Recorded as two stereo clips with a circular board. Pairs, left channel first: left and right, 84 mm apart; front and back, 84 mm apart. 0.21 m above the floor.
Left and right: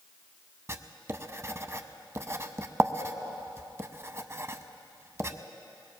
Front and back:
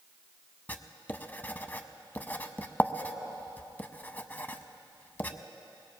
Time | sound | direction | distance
0.7 | writing | 55° right | 0.6 m